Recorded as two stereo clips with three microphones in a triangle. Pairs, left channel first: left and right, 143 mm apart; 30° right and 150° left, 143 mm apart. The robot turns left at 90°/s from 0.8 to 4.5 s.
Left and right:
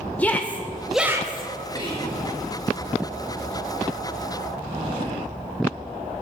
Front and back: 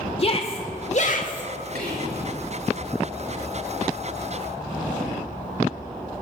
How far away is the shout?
About 1.5 m.